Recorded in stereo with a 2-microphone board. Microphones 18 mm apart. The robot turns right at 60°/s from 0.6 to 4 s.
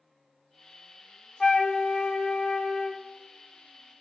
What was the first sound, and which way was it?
A flute, 45° left.